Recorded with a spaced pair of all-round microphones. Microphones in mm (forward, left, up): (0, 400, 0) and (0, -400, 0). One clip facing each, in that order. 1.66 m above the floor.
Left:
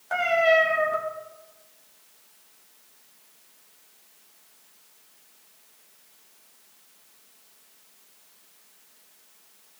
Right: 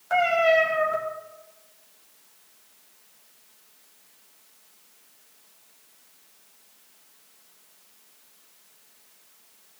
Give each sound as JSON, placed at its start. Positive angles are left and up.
{"t": 0.1, "sound": "a cat meowing", "side_deg": -45, "distance_m": 2.0}